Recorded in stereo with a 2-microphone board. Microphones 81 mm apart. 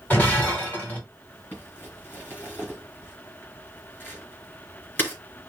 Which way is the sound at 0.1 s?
20° left (ahead or behind).